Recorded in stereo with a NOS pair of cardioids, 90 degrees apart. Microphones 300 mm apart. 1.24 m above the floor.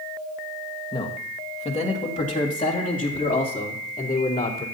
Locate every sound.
0.9 s a man speaking: 15° left, 1.8 m; by 4.7 s 30° left, 4 m